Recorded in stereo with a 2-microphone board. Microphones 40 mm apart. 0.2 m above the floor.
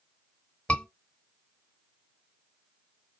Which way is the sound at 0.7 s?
25° left (ahead or behind).